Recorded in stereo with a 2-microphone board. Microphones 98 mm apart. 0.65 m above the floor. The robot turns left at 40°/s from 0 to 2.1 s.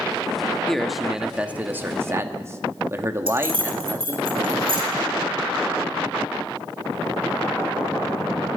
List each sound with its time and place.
0.7 s a man speaking: 10° left, 0.9 m; by 4.2 s 50° right, 0.9 m
3.3 s keys jangling: 75° right (ahead or behind), 2.5 m